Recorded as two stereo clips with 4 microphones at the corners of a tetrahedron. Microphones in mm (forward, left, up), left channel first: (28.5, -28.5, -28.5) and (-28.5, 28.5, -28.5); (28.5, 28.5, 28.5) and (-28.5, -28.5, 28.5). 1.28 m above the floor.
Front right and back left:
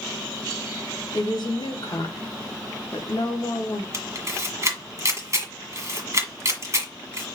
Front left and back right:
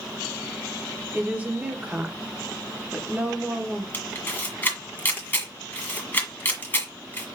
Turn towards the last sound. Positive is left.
turn(degrees=100)